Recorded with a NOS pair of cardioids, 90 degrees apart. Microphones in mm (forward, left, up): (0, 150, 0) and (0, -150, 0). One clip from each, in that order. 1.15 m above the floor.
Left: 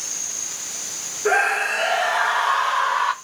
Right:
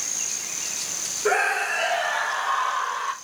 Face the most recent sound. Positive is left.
turn(degrees=50)